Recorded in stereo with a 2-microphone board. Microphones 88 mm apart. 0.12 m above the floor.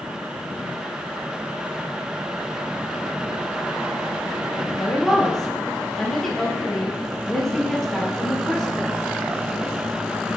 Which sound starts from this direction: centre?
A woman speaking, at 4.8 s.